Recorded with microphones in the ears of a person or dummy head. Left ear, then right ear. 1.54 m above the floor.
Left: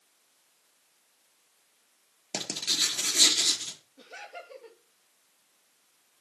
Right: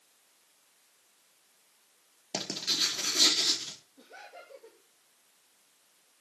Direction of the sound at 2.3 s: 15° left (ahead or behind).